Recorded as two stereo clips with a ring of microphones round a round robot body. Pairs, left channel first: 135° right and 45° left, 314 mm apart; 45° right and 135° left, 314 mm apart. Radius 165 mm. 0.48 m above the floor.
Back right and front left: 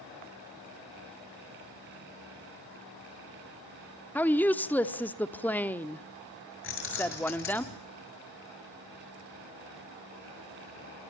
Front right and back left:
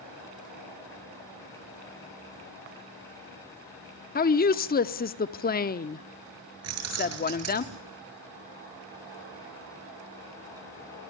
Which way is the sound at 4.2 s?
55° right.